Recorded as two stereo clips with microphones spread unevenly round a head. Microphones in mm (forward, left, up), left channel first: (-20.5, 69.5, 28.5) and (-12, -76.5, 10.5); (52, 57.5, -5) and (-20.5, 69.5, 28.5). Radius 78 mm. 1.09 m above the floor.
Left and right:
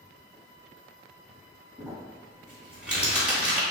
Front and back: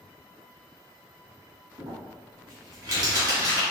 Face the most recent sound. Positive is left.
turn(degrees=-175)